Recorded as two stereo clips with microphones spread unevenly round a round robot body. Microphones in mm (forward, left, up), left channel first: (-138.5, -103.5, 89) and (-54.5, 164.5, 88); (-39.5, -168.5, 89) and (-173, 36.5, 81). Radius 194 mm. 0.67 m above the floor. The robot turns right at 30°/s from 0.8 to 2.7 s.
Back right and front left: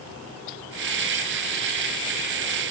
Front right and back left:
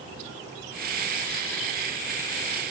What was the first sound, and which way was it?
Only background noise.